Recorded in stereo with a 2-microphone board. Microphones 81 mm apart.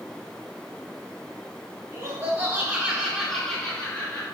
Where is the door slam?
No door slam in this recording.